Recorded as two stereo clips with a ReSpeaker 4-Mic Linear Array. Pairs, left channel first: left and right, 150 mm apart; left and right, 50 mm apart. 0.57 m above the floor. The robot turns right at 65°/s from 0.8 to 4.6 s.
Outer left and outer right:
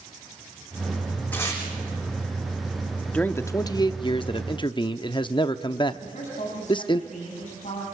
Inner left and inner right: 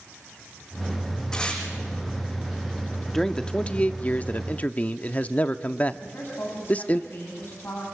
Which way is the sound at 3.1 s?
15° left.